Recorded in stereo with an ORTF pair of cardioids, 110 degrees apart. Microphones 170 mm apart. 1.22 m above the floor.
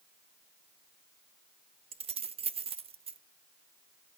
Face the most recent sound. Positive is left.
turn(degrees=-35)